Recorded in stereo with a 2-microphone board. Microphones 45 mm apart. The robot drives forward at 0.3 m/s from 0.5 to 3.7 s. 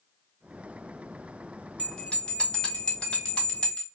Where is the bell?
20° left (ahead or behind), 1.0 m.